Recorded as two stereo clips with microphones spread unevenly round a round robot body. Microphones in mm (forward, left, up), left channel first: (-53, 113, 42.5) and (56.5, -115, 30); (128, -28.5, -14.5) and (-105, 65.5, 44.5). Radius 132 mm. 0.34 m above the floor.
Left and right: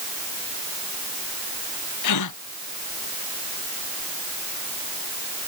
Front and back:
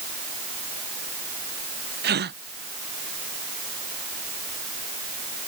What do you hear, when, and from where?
2.0 s a gasp: 110° left